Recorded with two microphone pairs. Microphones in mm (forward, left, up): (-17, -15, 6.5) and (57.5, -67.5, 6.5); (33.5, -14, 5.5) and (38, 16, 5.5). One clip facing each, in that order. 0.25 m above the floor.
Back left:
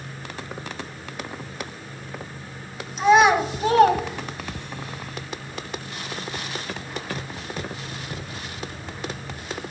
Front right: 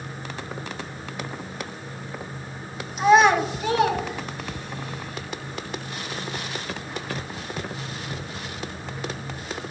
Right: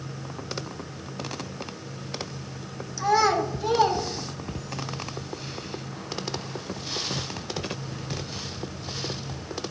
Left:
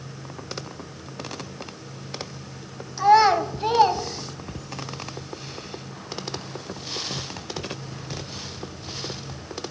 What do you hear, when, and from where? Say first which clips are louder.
3.0 s a child speaking: even, left 6 dB; 45° left, 1.1 m; by 4.8 s 160° left, 1.7 m